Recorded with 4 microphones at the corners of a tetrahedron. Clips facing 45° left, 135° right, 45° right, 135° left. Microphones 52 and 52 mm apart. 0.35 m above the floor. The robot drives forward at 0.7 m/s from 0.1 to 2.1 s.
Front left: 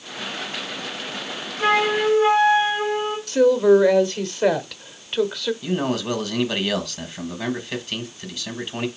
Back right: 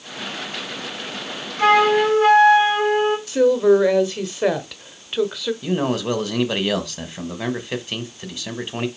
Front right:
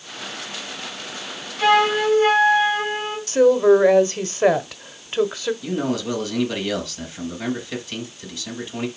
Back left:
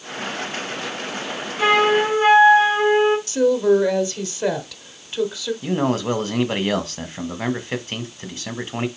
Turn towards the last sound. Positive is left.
turn(degrees=160)